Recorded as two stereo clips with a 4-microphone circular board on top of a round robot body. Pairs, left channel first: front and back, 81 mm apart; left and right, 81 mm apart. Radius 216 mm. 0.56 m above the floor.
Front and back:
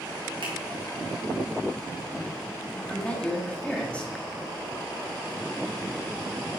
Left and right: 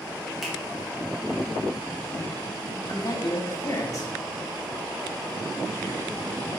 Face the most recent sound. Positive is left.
turn(degrees=65)